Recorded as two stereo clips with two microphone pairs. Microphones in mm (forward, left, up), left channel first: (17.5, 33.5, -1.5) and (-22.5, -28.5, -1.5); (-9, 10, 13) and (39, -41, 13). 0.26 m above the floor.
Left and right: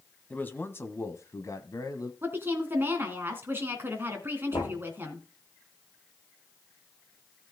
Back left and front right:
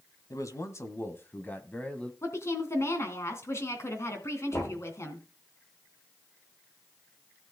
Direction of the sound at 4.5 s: 85° left.